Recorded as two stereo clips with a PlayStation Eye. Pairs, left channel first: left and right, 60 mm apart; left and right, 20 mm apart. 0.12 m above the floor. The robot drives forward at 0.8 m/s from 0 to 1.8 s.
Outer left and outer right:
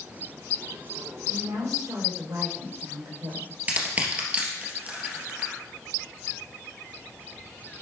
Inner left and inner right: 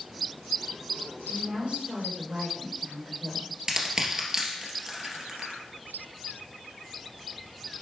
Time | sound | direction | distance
1.3 | a woman speaking | 75° right (ahead or behind) | 4.5 m
3.7 | crushing | 25° right (ahead or behind) | 2.5 m